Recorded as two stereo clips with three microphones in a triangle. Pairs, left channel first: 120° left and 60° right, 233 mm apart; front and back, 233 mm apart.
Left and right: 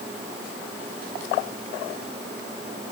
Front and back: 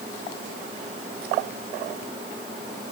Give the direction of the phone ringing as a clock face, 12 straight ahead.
I don't hear a phone ringing.